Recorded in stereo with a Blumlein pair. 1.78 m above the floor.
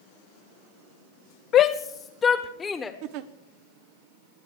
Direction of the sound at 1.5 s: 30° left.